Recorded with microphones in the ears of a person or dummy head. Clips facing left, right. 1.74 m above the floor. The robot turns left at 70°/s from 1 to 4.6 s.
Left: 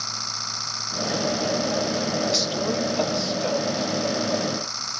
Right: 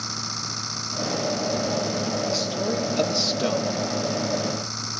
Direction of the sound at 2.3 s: 20° left.